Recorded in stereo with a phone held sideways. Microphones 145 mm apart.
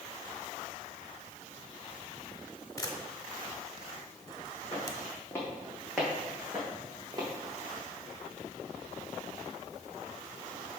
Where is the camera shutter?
25° left (ahead or behind), 1.1 m.